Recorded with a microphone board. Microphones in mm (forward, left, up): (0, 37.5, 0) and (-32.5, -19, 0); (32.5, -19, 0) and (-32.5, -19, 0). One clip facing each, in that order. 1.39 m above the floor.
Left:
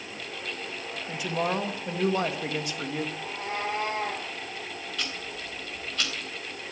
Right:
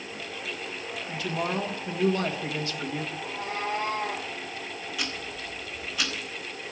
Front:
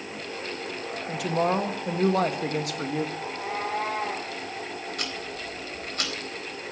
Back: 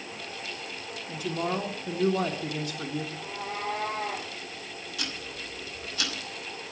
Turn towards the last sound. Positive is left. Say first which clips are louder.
# right 1 dB, front 4 dB
turn(degrees=-40)